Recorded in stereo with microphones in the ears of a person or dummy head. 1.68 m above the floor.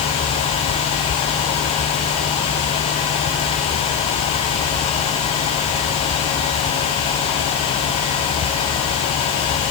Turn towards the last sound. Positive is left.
No sound to turn to.